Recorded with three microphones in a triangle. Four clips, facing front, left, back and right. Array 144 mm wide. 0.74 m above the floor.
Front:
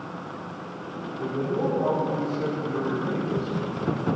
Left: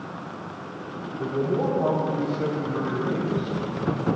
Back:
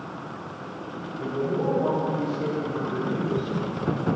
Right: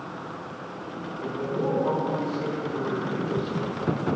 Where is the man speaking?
80° left, 4 m; by 3.6 s 70° left, 3 m.